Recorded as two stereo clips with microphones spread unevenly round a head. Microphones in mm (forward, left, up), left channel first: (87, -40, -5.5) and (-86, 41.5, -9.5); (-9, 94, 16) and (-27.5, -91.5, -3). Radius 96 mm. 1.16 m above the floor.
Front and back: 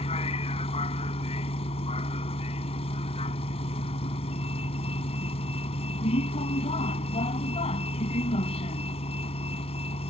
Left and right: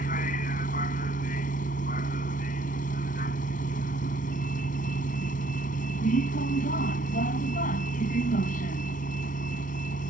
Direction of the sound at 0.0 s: 35° left.